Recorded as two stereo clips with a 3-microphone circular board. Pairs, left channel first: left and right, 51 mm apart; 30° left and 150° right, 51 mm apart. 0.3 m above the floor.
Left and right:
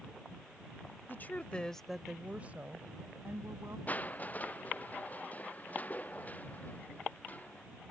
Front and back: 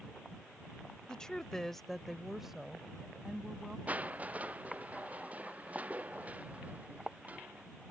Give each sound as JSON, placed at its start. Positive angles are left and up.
{"t": 1.1, "sound": "a woman speaking", "azimuth_deg": 100}
{"t": 3.9, "sound": "crushing", "azimuth_deg": 150}